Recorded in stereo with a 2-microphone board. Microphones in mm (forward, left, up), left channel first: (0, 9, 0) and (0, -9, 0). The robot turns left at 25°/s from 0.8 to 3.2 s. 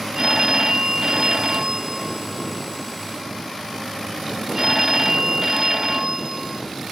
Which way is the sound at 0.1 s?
75° right.